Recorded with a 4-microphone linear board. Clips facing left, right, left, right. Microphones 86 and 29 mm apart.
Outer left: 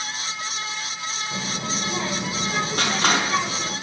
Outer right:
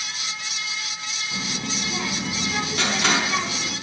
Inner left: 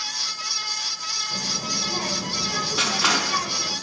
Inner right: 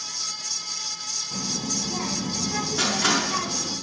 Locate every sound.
1.3 s a child speaking: 35° left (ahead or behind), 1.9 m
2.8 s crushing: 45° left (ahead or behind), 4.5 m